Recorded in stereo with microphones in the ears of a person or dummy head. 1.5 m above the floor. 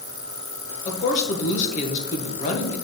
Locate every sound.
0.8 s a woman speaking: 40° left (ahead or behind), 1.6 m